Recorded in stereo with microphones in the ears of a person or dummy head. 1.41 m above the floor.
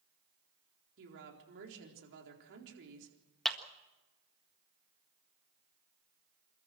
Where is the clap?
5° left (ahead or behind), 1.6 m.